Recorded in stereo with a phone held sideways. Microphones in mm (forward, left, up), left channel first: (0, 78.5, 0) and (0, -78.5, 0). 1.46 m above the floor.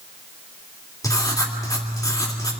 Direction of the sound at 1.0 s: 25° left (ahead or behind).